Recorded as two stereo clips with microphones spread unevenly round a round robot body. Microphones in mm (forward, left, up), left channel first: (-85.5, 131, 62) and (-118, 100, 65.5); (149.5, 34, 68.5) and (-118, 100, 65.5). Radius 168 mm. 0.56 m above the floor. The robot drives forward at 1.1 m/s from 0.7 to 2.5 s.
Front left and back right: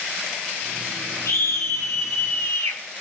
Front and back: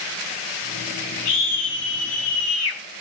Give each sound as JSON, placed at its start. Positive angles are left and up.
{"t": 1.2, "sound": "a scream", "azimuth_deg": 15, "distance_m": 7.5}